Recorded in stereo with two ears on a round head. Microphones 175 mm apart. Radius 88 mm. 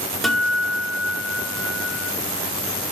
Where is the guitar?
Centre (ahead or behind), 1.0 m.